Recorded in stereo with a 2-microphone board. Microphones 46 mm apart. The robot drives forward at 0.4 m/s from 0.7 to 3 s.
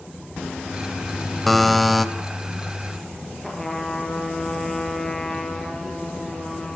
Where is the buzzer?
Centre (ahead or behind), 0.9 m.